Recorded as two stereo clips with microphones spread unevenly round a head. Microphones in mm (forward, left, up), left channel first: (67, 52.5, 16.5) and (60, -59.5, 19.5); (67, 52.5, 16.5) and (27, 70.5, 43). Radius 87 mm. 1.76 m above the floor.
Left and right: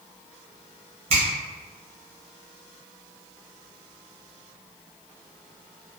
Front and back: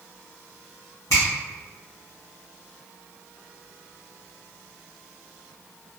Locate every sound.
1.1 s a finger snap: 95° right, 0.9 m